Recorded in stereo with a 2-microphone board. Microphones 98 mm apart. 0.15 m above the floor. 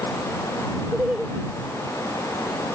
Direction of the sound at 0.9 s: 10° right (ahead or behind).